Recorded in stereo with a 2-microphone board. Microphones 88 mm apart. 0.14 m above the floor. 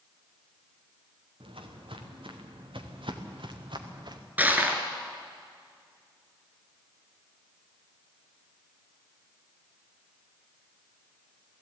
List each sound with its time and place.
1.4 s footsteps: 90° right, 3 m; by 4.2 s 60° right (ahead or behind), 2.5 m
4.4 s crushing: 20° right (ahead or behind), 1.9 m